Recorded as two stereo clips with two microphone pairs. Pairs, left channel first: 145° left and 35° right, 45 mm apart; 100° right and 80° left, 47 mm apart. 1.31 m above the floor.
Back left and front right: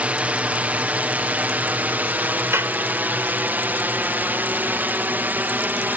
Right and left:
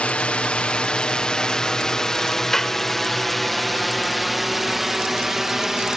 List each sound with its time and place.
0.0 s a drone: 60° right; by 6.0 s straight ahead
2.5 s a clap: 20° right